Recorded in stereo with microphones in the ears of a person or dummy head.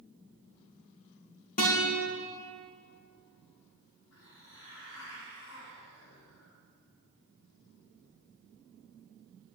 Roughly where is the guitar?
Left.